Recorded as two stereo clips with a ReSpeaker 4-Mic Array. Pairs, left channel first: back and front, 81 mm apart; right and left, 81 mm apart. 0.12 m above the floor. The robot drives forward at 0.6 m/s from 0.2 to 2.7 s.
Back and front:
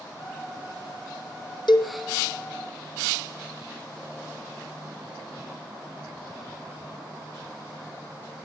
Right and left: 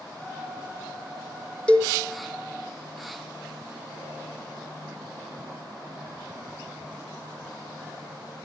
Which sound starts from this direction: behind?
A cowbell, at 1.7 s.